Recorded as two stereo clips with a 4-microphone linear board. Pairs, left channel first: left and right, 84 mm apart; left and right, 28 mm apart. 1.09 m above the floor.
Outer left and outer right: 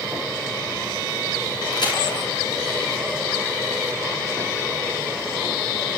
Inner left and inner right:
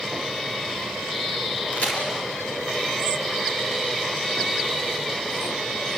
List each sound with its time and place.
1.7 s a crack: 65° left (ahead or behind), 6.5 m